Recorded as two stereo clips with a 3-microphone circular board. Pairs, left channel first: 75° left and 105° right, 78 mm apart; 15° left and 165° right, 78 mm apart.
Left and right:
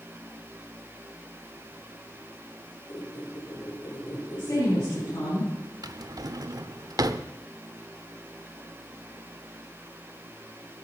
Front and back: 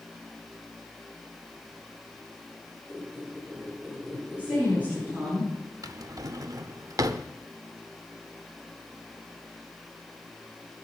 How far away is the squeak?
About 9.5 m.